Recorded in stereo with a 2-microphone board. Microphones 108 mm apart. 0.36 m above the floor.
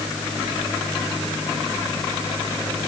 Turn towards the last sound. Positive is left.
No sound to turn to.